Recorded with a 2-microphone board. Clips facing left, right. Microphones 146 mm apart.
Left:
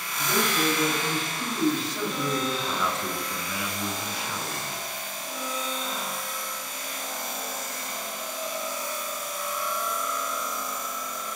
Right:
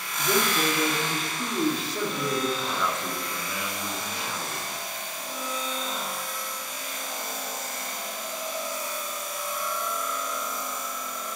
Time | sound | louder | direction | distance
0.2 | a man speaking | right 1 dB | 35° right (ahead or behind) | 2 m
2.7 | a man speaking | even | centre (ahead or behind) | 1.2 m